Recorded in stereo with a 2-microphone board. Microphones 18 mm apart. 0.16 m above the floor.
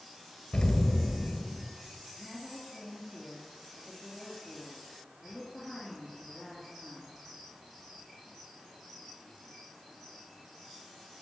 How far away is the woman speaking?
About 3 m.